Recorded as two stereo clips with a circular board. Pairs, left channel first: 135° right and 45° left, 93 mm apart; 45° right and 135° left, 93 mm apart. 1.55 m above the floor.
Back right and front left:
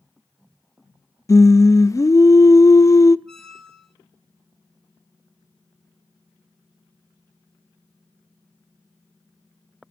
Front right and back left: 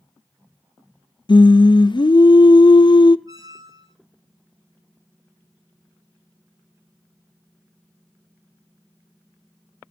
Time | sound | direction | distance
1.3 | singing | 80° right | 0.6 m
3.3 | a squeak | 140° left | 1.6 m